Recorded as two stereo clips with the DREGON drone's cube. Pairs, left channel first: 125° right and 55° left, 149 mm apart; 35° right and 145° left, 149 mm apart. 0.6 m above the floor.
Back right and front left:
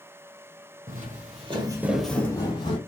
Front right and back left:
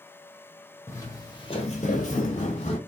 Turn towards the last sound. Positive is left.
turn(degrees=-80)